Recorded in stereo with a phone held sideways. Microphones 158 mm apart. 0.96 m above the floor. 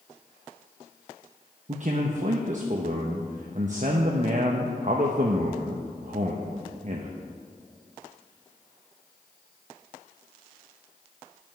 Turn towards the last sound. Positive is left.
turn(degrees=-50)  # may be behind; listen again after turning